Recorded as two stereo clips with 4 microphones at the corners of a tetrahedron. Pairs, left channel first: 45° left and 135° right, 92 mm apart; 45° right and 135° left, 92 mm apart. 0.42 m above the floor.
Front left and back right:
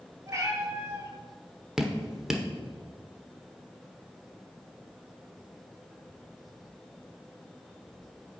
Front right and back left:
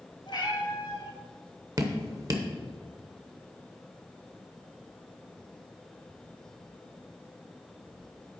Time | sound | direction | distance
0.3 | a cat meowing | 75° right | 1.8 m
1.8 | dripping | 145° left | 0.9 m